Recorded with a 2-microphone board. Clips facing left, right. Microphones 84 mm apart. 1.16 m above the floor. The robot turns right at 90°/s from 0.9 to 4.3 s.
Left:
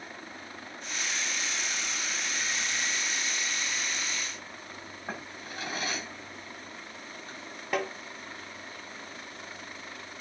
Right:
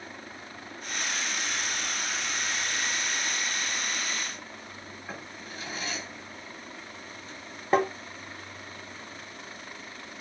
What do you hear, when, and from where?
5.1 s a drawer: 45° left (ahead or behind), 7.5 m
7.7 s tapping: 30° right (ahead or behind), 1.0 m